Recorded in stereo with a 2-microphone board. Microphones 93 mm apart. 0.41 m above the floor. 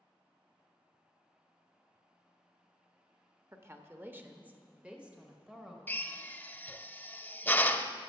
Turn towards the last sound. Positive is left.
turn(degrees=20)  # may be behind; listen again after turning